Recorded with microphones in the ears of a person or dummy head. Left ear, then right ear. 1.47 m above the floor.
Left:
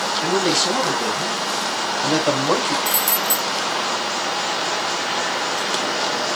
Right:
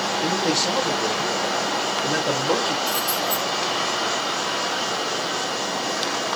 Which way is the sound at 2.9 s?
30° left (ahead or behind).